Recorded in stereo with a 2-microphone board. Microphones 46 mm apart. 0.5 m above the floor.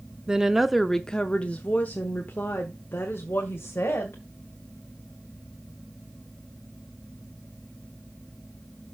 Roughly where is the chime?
I don't hear a chime.